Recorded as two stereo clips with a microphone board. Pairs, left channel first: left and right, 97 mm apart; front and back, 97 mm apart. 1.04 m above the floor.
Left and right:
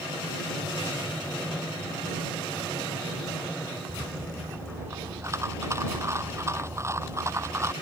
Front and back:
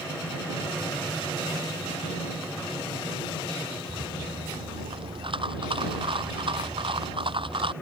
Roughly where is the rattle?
Behind right.